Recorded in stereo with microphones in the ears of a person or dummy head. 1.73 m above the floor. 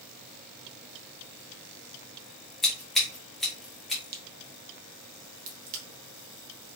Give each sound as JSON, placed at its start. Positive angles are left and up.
{"t": 2.6, "sound": "scissors", "side_deg": 0, "distance_m": 1.8}
{"t": 4.0, "sound": "a crack", "side_deg": -50, "distance_m": 1.1}